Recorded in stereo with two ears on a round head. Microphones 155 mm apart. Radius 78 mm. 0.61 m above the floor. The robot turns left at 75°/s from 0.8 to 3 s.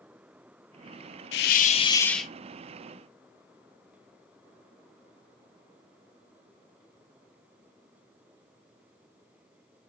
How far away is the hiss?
About 0.5 m.